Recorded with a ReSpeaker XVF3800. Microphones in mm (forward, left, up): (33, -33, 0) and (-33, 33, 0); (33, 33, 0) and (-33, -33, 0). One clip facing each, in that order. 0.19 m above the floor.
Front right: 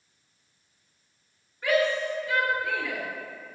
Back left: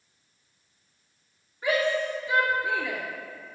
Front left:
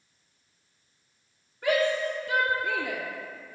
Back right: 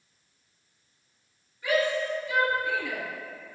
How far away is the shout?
About 2.5 m.